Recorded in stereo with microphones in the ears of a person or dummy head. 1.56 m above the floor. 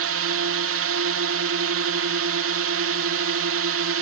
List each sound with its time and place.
0.0 s a drone: 60° right (ahead or behind)